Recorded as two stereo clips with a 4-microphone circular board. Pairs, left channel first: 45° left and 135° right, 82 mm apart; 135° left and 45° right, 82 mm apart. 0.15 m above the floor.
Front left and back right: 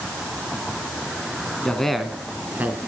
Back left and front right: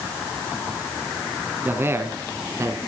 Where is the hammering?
I don't hear hammering.